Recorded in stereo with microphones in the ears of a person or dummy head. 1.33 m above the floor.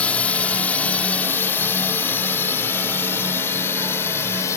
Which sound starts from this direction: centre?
A drone, at 0.0 s.